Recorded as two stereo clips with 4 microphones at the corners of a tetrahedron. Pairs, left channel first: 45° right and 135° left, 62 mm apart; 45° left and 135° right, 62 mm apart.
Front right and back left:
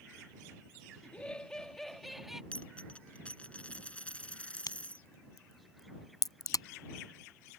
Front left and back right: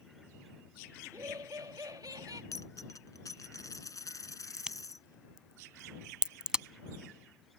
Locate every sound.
1.0 s laughter: 115° right; by 2.4 s 140° right
2.5 s a dropped coin: 25° left
4.6 s a crack: 60° right